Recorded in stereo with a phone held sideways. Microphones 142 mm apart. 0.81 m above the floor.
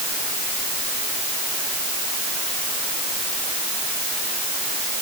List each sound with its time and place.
Only background noise.